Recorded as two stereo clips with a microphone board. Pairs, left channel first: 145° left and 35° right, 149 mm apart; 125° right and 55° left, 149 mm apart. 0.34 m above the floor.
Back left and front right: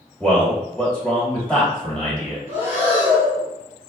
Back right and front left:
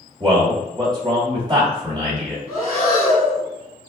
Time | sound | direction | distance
0.2 | a man speaking | 70° left | 1.5 m
2.5 | breathing | 35° left | 1.8 m